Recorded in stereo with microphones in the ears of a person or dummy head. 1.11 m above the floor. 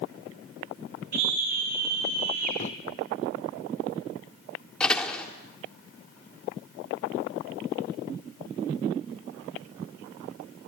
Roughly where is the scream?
Right.